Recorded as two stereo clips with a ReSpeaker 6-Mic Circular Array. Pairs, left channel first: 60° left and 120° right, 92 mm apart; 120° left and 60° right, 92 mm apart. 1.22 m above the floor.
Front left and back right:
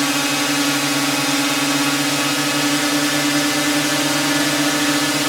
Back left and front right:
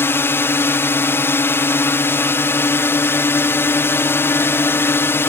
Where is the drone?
150° left.